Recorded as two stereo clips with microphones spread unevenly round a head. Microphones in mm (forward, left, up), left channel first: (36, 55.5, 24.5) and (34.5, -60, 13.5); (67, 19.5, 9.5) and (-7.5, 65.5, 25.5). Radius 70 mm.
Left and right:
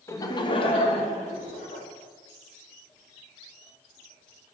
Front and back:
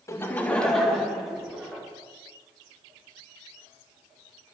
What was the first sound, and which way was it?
Laughter, 25° left.